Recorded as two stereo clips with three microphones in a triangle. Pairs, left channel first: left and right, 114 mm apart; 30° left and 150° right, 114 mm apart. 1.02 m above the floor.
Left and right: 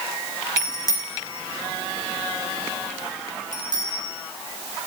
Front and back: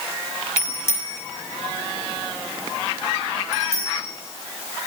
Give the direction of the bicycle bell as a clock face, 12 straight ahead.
11 o'clock.